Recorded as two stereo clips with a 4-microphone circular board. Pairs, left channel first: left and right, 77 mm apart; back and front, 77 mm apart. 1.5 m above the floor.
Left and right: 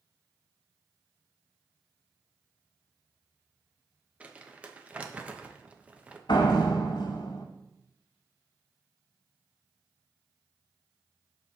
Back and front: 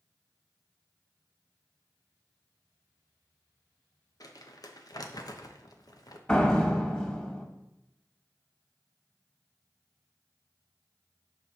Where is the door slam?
110° left, 1.7 m.